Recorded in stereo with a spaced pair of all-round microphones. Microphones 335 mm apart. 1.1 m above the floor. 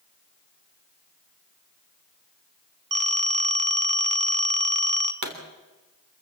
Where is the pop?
55° right (ahead or behind), 3 m.